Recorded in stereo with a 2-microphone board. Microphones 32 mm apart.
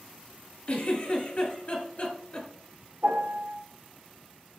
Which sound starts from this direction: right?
A piano, at 3.0 s.